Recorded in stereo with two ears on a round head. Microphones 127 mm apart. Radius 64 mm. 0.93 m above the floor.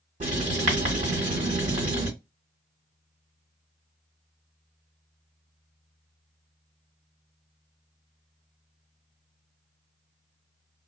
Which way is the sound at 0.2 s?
50° right (ahead or behind).